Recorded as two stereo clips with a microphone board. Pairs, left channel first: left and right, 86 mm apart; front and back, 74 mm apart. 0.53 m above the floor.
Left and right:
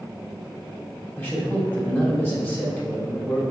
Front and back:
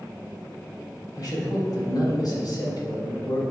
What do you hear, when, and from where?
1.2 s a man speaking: 25° left, 2.5 m